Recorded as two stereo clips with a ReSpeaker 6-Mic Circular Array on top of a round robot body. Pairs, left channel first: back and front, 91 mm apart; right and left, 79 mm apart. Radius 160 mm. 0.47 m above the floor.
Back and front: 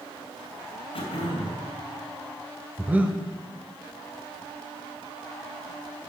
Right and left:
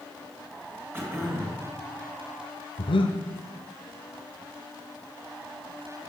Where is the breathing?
75° right, 0.9 m.